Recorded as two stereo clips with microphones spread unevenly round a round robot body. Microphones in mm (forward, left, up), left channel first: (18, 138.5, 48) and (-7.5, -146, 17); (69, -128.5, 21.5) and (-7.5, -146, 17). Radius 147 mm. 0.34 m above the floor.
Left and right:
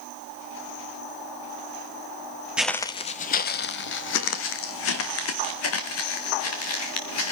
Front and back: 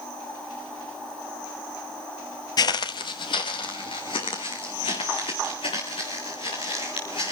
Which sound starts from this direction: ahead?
Footsteps, at 2.6 s.